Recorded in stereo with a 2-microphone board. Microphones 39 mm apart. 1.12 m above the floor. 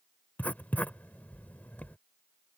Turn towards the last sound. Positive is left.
turn(degrees=45)  # may be behind; listen again after turning